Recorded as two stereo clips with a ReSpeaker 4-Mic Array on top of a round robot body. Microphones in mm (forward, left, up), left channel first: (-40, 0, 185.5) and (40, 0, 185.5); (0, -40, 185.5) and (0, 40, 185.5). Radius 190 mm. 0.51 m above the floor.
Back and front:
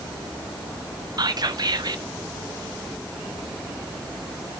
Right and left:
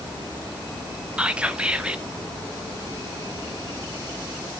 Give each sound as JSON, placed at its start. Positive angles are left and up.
{"t": 1.2, "sound": "whispering", "azimuth_deg": 15, "distance_m": 1.8}